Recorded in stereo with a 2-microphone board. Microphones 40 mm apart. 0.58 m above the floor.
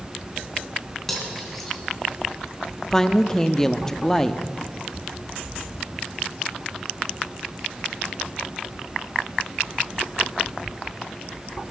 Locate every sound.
1.1 s cutlery clinking: 5° left (ahead or behind), 3 m
2.9 s a woman speaking: 10° left (ahead or behind), 0.6 m